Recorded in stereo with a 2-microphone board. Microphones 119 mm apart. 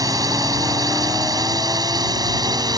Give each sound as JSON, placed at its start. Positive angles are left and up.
{"t": 0.0, "sound": "a drone", "side_deg": -30}